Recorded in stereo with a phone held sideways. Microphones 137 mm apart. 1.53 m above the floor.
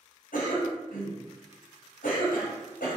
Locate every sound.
0.3 s a cough: 85° left, 0.7 m